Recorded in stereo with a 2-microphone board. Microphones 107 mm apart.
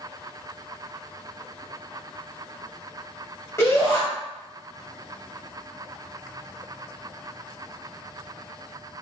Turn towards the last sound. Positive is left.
turn(degrees=25)  # may be behind; listen again after turning